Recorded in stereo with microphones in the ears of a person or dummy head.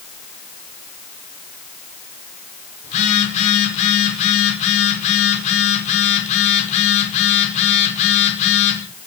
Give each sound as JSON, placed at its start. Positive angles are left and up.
{"t": 2.8, "sound": "a phone buzzing", "side_deg": 40, "distance_m": 5.0}